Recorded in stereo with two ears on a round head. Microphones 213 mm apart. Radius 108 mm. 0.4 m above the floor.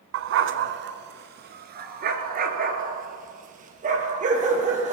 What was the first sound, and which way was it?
A dog barking, 60° right (ahead or behind).